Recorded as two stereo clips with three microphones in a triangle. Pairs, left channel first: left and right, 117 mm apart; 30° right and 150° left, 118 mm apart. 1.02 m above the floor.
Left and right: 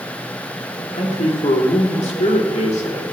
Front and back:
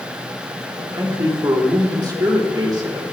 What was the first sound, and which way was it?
A man speaking, 95° left.